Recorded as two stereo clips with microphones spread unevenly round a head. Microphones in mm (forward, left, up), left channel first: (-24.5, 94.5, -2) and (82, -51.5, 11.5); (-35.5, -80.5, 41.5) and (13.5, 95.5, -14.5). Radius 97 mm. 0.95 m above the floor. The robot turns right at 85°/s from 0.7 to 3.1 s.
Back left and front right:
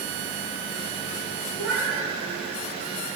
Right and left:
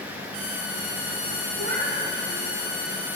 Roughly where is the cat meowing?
Left.